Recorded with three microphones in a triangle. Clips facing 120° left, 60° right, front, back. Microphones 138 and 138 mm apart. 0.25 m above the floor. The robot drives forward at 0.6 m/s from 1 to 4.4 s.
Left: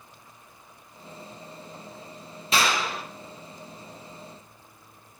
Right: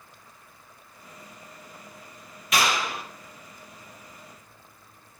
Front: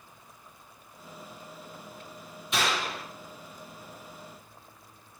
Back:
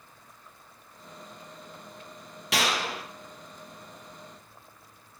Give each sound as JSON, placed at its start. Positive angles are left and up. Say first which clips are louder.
{"t": 2.5, "sound": "a clap", "louder": "even, back 1 dB", "azimuth_deg": 180, "distance_m": 4.0}